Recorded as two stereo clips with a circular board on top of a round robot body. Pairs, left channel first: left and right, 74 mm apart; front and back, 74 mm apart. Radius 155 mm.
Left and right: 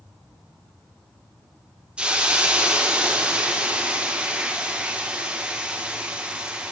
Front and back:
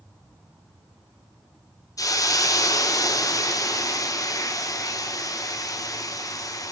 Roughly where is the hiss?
Ahead.